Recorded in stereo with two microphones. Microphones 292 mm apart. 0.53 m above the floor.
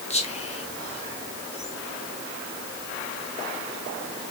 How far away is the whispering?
About 0.6 m.